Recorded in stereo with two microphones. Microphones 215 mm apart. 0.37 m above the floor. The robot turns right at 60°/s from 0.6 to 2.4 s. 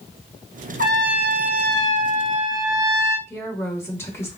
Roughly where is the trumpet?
Behind right.